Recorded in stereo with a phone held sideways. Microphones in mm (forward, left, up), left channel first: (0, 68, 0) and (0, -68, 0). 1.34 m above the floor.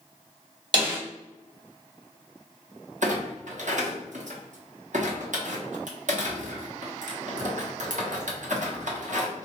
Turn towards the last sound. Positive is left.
turn(degrees=-65)  # may be behind; listen again after turning